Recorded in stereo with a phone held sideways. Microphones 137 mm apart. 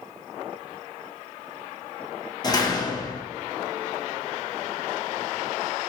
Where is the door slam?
30° left (ahead or behind), 0.8 m.